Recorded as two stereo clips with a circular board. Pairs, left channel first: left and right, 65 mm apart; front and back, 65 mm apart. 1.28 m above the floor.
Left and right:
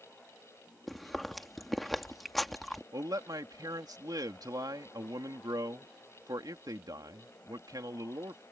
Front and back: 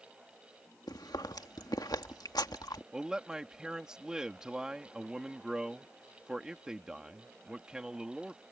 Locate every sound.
0.9 s chewing: straight ahead
2.9 s a man speaking: 105° right